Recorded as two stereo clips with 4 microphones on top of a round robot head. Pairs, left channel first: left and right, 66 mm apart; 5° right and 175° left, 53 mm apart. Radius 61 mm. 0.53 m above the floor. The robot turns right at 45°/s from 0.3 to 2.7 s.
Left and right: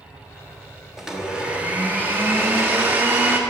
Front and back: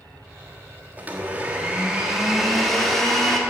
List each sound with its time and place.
1.0 s a blender: 170° right, 1.4 m; by 3.4 s 90° right, 1.4 m